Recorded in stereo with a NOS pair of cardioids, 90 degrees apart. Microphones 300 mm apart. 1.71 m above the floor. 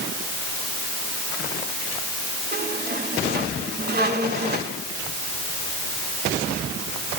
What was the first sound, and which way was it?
A squeak, 35° right.